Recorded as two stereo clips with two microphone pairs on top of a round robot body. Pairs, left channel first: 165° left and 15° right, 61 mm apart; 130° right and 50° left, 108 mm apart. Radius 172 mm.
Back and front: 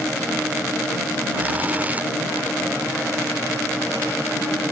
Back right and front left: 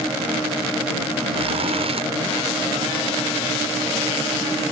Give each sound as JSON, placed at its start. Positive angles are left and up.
{"t": 1.3, "sound": "a zipper", "azimuth_deg": 50}